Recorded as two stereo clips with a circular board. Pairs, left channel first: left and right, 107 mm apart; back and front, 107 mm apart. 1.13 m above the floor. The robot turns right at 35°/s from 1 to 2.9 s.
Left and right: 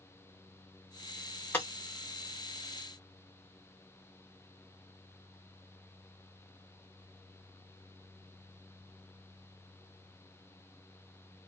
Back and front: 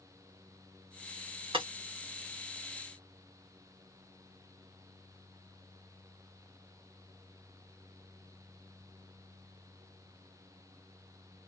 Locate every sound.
1.5 s breaking glass: 20° left, 0.8 m; by 1.7 s 25° left, 0.8 m